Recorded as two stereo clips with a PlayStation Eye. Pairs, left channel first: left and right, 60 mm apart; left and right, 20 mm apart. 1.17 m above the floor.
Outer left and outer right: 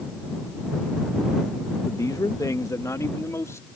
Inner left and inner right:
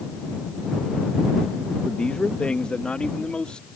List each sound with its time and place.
1.9 s a man speaking: 65° left (ahead or behind); by 3.7 s 55° left (ahead or behind)